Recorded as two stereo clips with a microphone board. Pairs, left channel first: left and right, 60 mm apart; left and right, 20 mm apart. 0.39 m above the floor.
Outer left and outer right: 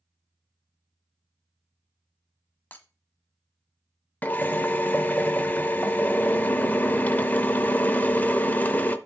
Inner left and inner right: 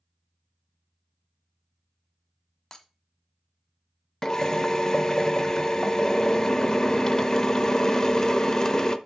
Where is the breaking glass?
25° left (ahead or behind), 1.1 m.